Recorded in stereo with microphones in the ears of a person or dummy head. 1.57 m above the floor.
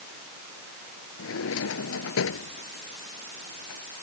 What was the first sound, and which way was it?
A drawer, 75° left (ahead or behind).